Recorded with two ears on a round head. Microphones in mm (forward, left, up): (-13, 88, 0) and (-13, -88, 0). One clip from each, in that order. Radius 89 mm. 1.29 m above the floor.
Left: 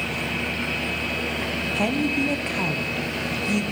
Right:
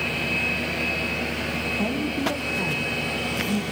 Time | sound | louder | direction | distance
1.8 | a woman speaking | left 3 dB | 50° left (ahead or behind) | 1.2 m